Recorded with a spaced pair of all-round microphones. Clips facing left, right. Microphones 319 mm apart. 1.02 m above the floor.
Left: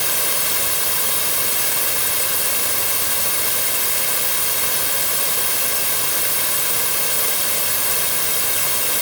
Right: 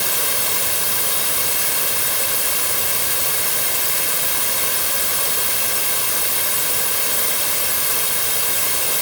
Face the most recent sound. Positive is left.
No sound to turn to.